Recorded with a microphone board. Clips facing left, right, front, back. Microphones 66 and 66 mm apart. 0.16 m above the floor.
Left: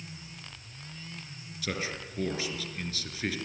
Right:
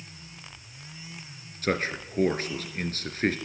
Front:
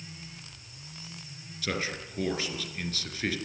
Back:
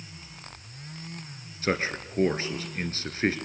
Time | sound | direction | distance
1.6 | a man speaking | 130° right | 2.5 m